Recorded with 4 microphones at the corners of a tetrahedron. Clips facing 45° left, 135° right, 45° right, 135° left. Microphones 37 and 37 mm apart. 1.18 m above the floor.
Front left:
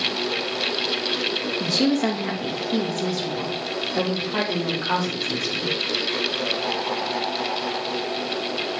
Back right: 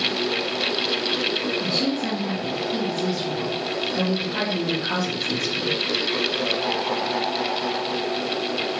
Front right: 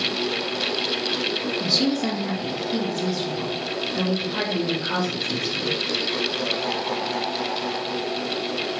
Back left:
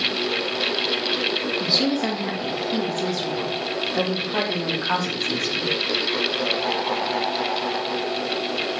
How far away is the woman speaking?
About 1.5 m.